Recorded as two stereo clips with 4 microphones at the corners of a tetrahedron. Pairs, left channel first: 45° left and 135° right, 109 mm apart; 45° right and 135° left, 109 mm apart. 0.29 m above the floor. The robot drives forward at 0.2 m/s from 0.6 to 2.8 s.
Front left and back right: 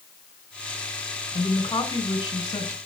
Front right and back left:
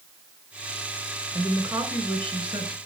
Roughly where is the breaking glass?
I don't hear breaking glass.